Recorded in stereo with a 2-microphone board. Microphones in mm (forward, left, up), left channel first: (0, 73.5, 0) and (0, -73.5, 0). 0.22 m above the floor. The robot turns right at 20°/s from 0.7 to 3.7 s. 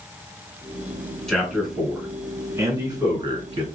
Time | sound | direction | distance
1.3 | a man speaking | centre (ahead or behind) | 1.9 m